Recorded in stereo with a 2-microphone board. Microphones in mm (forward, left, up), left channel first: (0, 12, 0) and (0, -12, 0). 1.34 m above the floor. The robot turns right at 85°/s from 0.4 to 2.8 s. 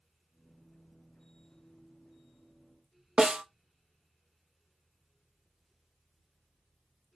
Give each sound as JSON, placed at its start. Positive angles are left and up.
{"t": 3.2, "sound": "a snare drum", "side_deg": -40, "distance_m": 0.5}